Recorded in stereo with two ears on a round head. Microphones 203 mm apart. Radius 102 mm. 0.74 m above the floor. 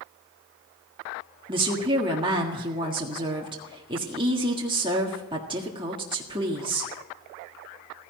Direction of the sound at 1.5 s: 20° right (ahead or behind).